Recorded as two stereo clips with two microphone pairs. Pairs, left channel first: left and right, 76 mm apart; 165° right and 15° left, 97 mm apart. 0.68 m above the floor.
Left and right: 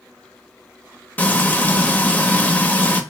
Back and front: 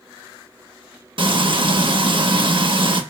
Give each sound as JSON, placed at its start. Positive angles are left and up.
{"t": 1.2, "sound": "frying", "azimuth_deg": 15, "distance_m": 0.5}